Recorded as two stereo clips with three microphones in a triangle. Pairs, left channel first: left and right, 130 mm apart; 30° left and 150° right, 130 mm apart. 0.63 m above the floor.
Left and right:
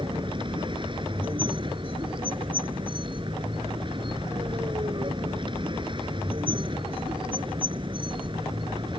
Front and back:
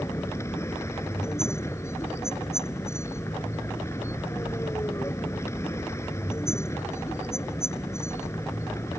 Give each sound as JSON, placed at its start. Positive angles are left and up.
{"t": 0.0, "sound": "a vehicle", "azimuth_deg": -40}